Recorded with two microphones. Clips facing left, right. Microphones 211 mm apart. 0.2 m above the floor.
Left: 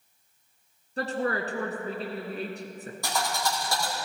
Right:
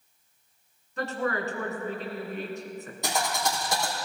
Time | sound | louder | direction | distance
1.0 | a woman speaking | left 1 dB | 35° left (ahead or behind) | 2.5 m
3.0 | a thud | right 1 dB | 20° right (ahead or behind) | 4.5 m